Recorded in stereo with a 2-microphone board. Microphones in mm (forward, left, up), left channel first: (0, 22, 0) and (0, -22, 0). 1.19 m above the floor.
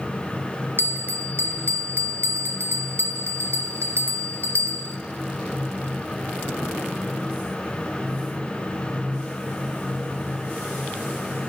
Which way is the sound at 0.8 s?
60° right (ahead or behind).